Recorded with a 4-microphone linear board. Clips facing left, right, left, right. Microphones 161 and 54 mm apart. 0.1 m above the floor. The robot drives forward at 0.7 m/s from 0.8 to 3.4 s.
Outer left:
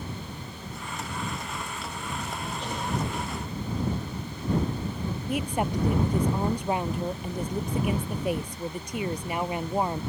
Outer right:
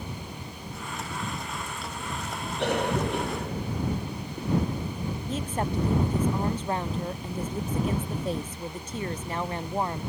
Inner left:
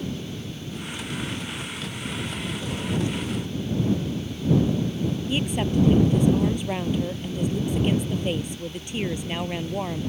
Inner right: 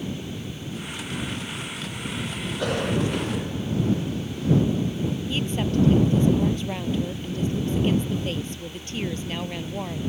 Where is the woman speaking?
15° left (ahead or behind).